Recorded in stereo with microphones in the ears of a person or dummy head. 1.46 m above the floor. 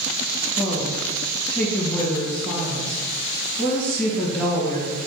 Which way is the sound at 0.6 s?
5° left (ahead or behind).